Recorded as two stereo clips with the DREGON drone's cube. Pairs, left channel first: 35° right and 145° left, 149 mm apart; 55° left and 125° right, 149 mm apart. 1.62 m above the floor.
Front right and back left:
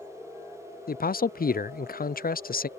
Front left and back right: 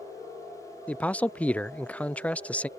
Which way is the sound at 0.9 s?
25° right.